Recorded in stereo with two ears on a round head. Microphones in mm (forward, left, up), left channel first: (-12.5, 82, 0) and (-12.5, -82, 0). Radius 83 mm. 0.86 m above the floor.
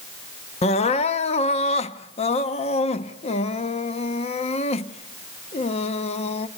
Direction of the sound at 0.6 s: 40° left (ahead or behind).